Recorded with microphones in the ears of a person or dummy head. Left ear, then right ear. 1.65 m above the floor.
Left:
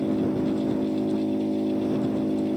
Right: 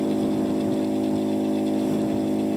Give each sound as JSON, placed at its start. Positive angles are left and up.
{"t": 0.0, "sound": "an engine running", "side_deg": -45}